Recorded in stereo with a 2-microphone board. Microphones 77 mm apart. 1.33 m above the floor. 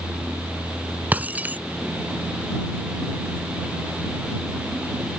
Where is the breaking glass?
20° right (ahead or behind).